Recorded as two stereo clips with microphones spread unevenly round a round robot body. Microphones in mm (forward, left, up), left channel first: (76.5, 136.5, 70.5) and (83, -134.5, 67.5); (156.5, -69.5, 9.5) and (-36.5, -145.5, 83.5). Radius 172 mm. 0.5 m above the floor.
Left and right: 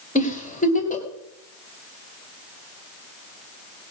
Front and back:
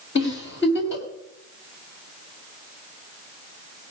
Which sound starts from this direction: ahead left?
A giggle, at 0.1 s.